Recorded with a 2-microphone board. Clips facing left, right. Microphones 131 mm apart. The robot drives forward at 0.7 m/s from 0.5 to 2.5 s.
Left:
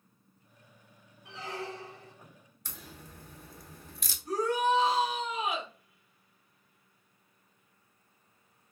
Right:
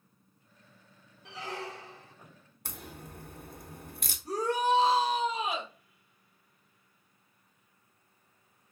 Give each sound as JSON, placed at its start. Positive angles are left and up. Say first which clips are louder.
{"t": 1.2, "sound": "a squeak", "louder": "even", "side_deg": -75, "distance_m": 1.0}
{"t": 2.6, "sound": "a crack", "louder": "right 4 dB", "side_deg": -60, "distance_m": 0.6}
{"t": 4.2, "sound": "a shout", "louder": "even", "side_deg": -35, "distance_m": 1.4}